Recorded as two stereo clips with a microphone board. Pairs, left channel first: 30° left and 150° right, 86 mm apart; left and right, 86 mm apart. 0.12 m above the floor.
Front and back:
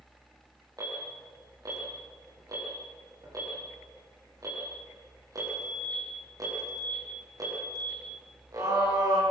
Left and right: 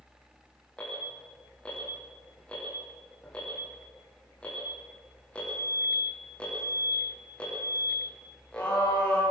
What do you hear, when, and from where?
0.8 s an alarm: 165° left, 9 m